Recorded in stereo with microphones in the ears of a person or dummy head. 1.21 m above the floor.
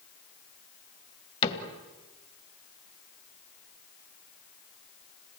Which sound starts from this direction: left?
A cupboard door, at 1.4 s.